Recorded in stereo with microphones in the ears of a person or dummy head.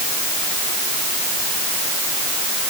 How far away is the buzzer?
No buzzer in this recording.